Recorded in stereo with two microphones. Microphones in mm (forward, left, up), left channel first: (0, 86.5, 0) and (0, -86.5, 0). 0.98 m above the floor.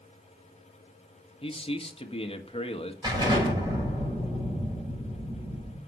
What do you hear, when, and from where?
1.4 s a man speaking: 35° left (ahead or behind), 1.6 m
3.0 s an explosion: 25° right (ahead or behind), 6.5 m